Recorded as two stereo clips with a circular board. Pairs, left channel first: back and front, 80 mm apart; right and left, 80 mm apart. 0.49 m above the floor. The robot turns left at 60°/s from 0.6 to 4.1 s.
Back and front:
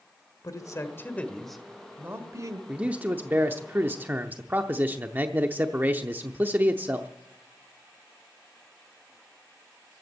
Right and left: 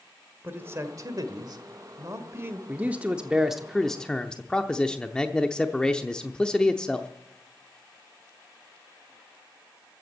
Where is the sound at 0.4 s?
145° left, 1.6 m; by 2.6 s 30° left, 1.6 m.